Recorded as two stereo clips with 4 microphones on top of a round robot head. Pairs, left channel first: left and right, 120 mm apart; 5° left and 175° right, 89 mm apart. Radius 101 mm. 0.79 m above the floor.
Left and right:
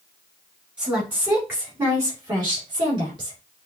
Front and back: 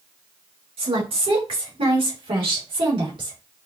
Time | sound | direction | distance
0.8 | a woman speaking | 170° right | 3 m